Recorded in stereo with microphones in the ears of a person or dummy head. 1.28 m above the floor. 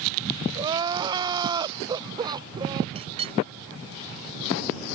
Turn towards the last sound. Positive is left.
turn(degrees=-30)  # may be behind; listen again after turning